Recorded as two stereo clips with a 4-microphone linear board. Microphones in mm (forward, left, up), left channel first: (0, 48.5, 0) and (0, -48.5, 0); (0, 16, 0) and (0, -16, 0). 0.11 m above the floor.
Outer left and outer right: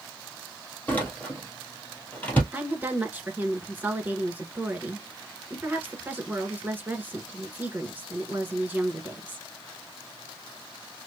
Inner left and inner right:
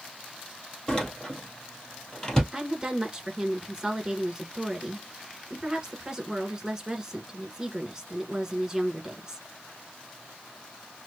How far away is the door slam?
About 1.8 m.